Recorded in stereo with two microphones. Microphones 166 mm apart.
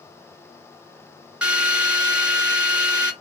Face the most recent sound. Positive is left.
turn(degrees=-5)  # may be behind; listen again after turning